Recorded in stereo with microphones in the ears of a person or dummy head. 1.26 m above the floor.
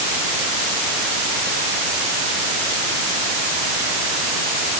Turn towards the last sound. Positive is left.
No sound to turn to.